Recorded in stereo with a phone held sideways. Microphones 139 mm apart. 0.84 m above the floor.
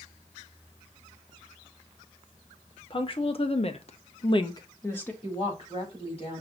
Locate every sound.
2.9 s a woman speaking: 40° left (ahead or behind), 1.1 m; by 5.1 s 10° left (ahead or behind), 0.8 m
5.2 s a woman speaking: 45° left (ahead or behind), 4 m